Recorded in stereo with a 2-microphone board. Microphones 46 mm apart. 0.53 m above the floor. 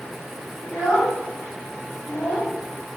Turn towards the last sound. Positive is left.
turn(degrees=45)  # may be behind; listen again after turning